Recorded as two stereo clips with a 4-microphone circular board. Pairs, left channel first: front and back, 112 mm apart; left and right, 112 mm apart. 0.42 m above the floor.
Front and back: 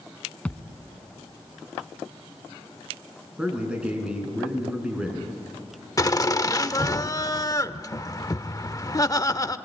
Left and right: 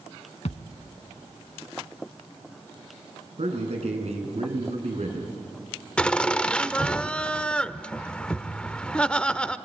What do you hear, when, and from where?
0.5 s a thud: 80° left, 1.3 m
3.4 s a man speaking: 100° right, 5 m
6.0 s laughter: 15° left, 0.8 m